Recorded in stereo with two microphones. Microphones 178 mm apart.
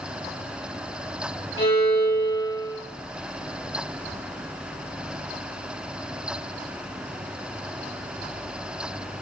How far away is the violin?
About 4.5 m.